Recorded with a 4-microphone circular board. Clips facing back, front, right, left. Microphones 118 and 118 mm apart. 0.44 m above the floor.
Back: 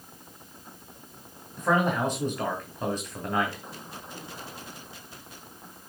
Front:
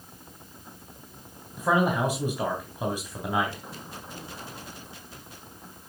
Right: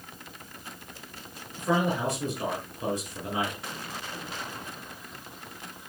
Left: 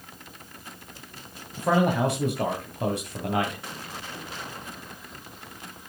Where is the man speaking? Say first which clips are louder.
Front 1 dB, left 4 dB; 80° left, 2.5 m.